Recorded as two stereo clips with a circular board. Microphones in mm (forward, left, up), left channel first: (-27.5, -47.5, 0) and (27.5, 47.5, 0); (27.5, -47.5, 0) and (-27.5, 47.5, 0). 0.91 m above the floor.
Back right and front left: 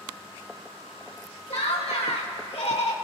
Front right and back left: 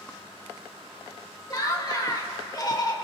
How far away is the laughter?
About 2.5 m.